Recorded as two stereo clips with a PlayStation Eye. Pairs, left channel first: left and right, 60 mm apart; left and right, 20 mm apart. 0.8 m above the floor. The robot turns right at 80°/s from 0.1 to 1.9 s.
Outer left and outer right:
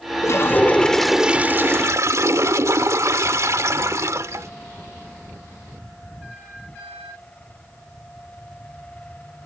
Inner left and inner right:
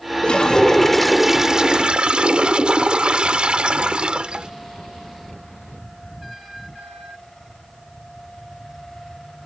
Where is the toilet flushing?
115° left; by 4.5 s 110° right.